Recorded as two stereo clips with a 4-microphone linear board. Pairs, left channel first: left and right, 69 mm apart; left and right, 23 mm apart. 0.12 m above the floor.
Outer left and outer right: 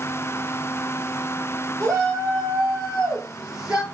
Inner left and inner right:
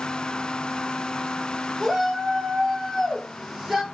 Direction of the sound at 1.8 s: 10° left (ahead or behind).